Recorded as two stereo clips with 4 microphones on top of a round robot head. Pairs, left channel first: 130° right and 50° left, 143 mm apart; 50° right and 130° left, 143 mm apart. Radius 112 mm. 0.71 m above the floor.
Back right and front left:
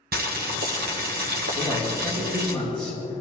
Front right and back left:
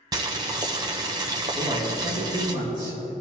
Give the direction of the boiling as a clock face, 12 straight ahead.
10 o'clock.